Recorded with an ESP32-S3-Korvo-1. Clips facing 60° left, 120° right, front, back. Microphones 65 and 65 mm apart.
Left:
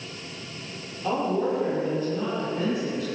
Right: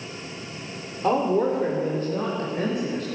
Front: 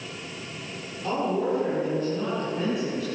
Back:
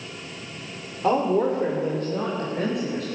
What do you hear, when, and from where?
1.0 s a woman speaking: 150° right, 2.5 m; by 3.0 s 155° right, 4 m